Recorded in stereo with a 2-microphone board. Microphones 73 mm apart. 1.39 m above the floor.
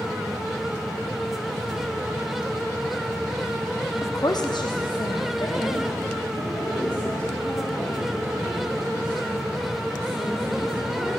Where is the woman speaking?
35° left (ahead or behind), 0.5 m; by 11.2 s 65° left (ahead or behind), 8 m.